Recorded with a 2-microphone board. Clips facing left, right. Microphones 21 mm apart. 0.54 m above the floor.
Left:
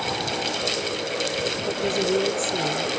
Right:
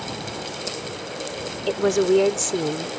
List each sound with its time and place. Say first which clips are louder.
1.7 s a woman speaking: right 7 dB; 55° right (ahead or behind)